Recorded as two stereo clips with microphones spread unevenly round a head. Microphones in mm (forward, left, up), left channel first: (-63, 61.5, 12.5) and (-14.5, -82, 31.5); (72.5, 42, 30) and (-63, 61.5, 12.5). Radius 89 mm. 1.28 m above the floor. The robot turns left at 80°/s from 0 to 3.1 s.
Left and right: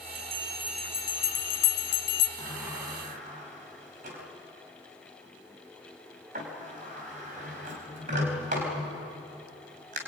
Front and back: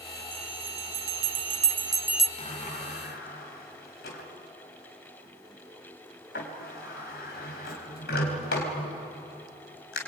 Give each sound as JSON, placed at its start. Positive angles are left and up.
{"t": 0.1, "sound": "a bell", "azimuth_deg": -110, "distance_m": 0.6}
{"t": 2.4, "sound": "a sliding door", "azimuth_deg": 35, "distance_m": 4.0}